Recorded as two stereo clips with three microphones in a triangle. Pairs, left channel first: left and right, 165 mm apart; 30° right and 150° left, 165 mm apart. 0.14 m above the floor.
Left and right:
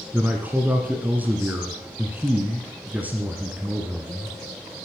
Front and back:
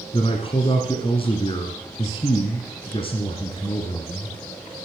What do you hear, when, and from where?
0.1 s a man speaking: 20° right, 1.4 m